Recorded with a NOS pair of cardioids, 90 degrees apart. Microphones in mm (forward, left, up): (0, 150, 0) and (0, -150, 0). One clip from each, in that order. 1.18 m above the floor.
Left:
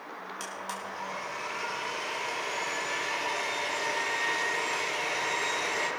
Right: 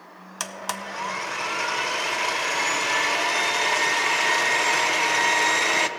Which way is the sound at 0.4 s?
70° right.